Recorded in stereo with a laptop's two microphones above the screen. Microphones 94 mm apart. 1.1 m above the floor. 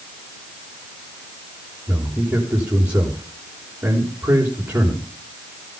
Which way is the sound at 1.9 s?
35° right (ahead or behind).